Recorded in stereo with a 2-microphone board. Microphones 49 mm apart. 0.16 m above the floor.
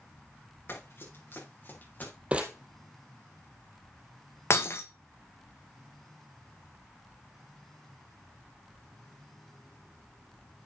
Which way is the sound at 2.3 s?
20° right (ahead or behind).